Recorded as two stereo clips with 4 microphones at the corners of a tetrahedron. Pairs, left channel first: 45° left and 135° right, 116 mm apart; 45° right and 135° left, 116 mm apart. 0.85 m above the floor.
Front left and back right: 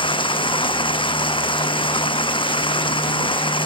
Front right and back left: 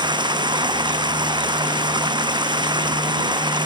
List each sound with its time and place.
0.0 s running water: 85° left